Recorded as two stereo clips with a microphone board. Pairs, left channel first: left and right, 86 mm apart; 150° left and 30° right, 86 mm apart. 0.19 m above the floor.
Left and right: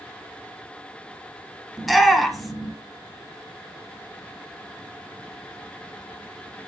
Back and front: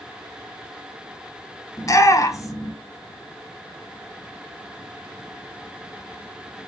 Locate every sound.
1.8 s a shout: straight behind, 1.4 m